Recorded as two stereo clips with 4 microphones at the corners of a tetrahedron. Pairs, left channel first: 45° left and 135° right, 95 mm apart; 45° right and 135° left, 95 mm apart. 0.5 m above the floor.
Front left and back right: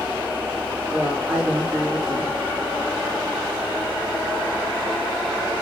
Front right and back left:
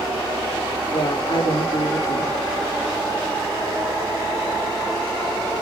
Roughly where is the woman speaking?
Ahead right.